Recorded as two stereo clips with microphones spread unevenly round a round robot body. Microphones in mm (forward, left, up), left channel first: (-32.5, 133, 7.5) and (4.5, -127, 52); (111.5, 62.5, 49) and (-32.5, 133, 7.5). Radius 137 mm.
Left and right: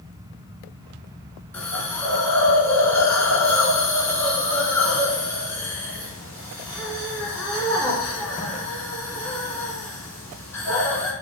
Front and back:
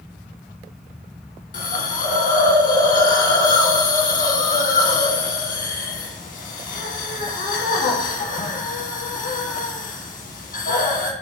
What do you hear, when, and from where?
1.5 s a hiss: 15° left, 0.7 m